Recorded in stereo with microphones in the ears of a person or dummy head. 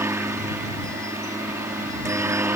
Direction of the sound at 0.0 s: 5° right (ahead or behind).